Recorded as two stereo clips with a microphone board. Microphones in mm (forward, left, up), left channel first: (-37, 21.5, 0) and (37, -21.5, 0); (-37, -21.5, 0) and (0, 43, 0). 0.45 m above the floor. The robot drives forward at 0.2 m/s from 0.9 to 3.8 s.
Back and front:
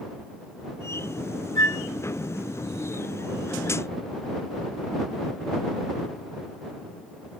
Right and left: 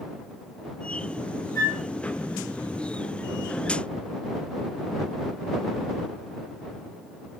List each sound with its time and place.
1.6 s a flute: 165° right, 1.6 m